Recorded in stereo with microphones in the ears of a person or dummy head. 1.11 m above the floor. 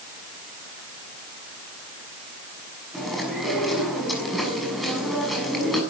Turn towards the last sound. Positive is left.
turn(degrees=0)  # may be behind; listen again after turning